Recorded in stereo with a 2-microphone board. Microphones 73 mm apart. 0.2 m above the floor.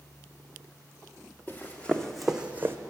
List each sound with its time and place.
1.5 s running footsteps: 25° left (ahead or behind), 1.0 m; by 2.8 s 35° right (ahead or behind), 0.6 m